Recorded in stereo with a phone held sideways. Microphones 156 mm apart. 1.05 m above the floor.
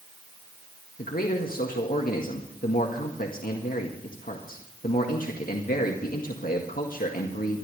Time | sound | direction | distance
1.0 | a man speaking | 65° left (ahead or behind) | 1.8 m